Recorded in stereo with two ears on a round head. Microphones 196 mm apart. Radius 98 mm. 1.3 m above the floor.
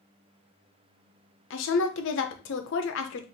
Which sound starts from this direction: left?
A woman speaking, at 1.5 s.